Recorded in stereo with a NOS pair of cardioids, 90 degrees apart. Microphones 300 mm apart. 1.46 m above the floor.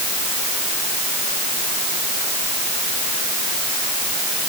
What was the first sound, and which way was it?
Only background noise.